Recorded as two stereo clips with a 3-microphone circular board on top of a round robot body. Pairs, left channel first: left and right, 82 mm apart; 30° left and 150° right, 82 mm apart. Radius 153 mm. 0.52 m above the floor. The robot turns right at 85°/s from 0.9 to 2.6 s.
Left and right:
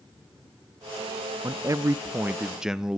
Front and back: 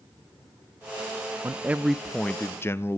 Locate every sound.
1.4 s a man speaking: 110° right, 0.7 m; by 3.0 s 10° right, 0.7 m